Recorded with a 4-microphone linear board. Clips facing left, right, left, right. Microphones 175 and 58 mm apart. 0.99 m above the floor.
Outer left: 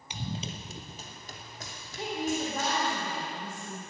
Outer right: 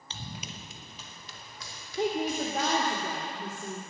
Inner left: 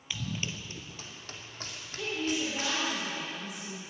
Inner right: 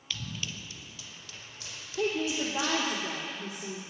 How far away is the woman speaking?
About 2.5 m.